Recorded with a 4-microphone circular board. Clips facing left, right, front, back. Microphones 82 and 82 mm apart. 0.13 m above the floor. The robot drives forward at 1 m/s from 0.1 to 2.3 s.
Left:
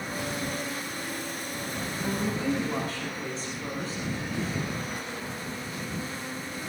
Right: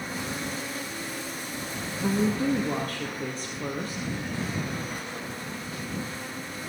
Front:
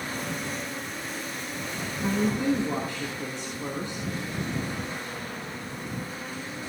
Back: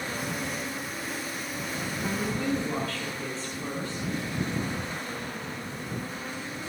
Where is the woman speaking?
65° right, 3 m; by 4.0 s 70° right, 2.5 m.